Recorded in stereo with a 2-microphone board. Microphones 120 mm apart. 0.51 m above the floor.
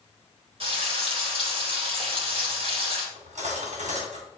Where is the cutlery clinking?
70° right (ahead or behind), 2.5 m.